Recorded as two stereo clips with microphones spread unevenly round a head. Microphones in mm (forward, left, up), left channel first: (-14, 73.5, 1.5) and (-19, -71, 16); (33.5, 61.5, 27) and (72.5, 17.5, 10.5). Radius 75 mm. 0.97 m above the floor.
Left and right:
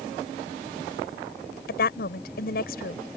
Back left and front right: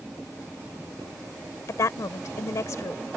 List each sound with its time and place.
1.7 s a woman speaking: 105° left